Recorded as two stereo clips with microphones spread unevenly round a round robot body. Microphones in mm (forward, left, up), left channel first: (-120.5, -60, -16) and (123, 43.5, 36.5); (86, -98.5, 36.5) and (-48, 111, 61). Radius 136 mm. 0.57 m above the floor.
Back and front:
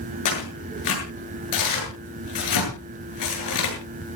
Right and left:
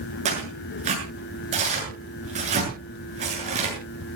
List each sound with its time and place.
0.2 s tearing paper: 175° right, 8 m